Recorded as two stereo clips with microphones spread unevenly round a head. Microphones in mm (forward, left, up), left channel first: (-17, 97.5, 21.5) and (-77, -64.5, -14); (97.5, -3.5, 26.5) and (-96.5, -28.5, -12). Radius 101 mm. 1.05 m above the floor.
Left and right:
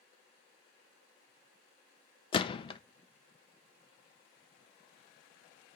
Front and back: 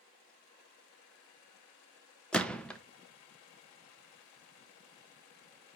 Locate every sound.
2.3 s a gunshot: 115° left, 0.5 m